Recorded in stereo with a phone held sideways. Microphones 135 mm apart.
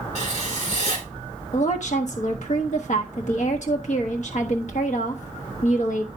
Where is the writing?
60° left (ahead or behind), 4 m.